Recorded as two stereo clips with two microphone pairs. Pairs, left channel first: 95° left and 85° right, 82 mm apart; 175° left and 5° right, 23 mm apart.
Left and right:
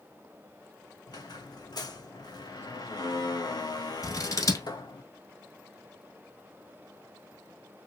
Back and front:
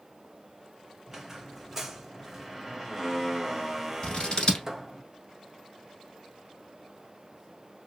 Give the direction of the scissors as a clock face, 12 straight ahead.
8 o'clock.